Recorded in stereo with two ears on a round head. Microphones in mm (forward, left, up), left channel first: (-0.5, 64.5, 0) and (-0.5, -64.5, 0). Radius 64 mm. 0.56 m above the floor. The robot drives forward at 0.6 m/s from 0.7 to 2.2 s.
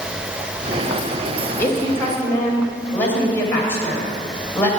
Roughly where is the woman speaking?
Centre.